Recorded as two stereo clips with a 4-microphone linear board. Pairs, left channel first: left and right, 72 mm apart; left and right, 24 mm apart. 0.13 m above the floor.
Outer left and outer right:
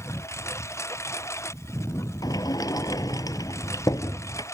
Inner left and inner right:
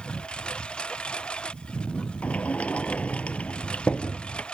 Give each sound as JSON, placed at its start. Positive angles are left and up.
{"t": 0.0, "sound": "a lawn mower", "side_deg": 40}
{"t": 2.2, "sound": "a sliding door", "side_deg": 60}